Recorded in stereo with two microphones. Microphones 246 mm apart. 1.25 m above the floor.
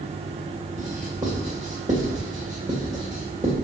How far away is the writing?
About 2.5 m.